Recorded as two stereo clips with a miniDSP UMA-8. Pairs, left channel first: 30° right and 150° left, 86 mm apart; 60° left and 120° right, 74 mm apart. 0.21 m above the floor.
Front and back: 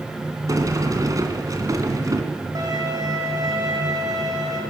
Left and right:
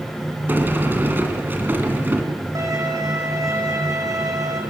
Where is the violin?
165° right, 5 m.